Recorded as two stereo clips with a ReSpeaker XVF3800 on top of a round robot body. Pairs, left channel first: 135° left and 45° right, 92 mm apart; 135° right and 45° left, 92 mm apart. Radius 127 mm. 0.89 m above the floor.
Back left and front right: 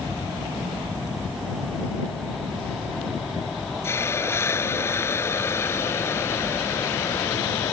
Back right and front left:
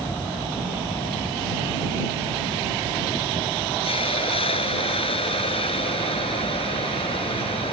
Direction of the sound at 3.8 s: 160° right.